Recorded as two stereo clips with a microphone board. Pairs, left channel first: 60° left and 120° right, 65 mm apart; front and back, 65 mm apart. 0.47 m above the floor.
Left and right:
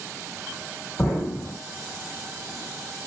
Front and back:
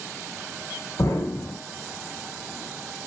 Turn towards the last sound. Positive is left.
turn(degrees=0)